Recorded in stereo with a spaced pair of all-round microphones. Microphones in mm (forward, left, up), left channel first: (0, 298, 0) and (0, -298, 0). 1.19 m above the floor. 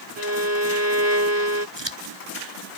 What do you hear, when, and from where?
0.2 s a violin: 25° right (ahead or behind)
1.8 s scissors: 45° right (ahead or behind)